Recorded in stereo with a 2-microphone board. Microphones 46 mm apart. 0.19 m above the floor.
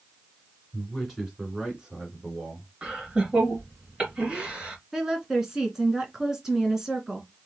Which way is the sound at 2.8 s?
20° right (ahead or behind).